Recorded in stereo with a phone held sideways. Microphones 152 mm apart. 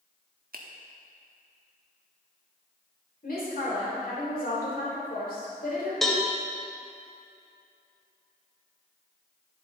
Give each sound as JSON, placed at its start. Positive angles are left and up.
{"t": 0.5, "sound": "a finger snap", "side_deg": -75, "distance_m": 1.1}
{"t": 3.2, "sound": "a woman speaking", "side_deg": 75, "distance_m": 3.5}
{"t": 6.0, "sound": "a cowbell", "side_deg": 0, "distance_m": 1.1}